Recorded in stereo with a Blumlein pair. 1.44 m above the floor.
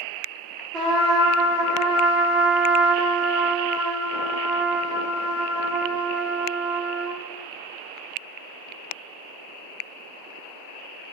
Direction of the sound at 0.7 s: 25° right.